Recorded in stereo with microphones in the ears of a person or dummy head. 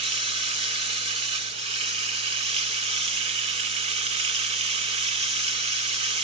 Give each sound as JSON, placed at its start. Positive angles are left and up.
{"t": 0.0, "sound": "running water", "side_deg": -40, "distance_m": 0.9}